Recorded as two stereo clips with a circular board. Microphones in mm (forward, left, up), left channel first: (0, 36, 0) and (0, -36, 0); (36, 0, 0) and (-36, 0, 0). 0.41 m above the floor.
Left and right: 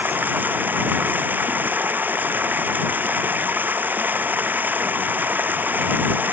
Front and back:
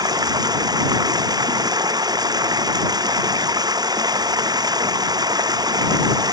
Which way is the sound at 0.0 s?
155° right.